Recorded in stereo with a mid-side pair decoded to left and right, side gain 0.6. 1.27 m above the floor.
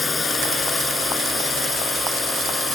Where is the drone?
20° left; by 2.8 s 15° left.